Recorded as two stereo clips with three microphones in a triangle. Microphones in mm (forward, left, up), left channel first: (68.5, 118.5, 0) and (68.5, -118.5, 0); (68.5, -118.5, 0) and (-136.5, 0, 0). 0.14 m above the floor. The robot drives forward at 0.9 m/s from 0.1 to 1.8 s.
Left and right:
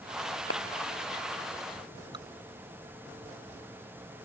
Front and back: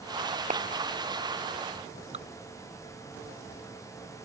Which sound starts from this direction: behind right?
Dripping, at 2.1 s.